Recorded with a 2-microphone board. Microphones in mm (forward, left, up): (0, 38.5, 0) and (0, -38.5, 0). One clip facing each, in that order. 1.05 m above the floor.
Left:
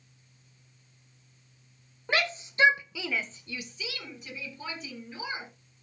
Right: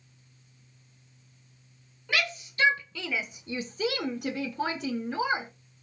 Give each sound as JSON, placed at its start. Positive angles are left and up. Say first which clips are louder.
{"t": 2.1, "sound": "a shout", "louder": "left 1 dB", "side_deg": 35, "distance_m": 1.6}